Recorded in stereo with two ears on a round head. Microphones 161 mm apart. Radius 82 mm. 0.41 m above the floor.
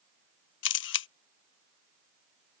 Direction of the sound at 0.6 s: 70° left (ahead or behind).